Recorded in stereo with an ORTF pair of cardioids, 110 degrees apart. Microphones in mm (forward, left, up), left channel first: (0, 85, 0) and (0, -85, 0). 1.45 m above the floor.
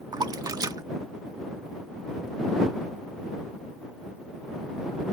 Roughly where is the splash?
Ahead right.